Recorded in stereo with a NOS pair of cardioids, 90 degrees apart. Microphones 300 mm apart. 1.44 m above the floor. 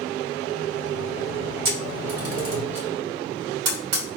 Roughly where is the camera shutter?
Ahead right.